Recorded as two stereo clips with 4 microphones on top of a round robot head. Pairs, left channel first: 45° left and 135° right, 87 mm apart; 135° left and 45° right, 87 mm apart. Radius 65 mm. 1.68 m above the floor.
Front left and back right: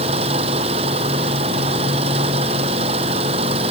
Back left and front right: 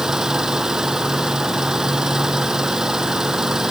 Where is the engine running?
130° right.